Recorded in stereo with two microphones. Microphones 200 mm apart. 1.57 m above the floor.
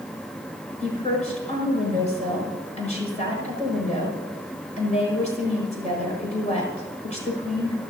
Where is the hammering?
I don't hear hammering.